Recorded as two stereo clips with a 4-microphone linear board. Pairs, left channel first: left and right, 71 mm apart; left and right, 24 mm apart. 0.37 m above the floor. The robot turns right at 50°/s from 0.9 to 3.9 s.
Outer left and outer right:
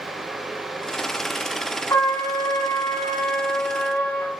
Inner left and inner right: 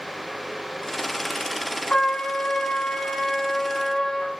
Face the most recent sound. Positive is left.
turn(degrees=145)